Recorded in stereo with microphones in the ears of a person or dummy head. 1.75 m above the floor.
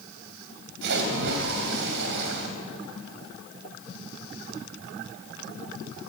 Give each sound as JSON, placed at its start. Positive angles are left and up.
{"t": 0.8, "sound": "a splash", "side_deg": -65, "distance_m": 3.0}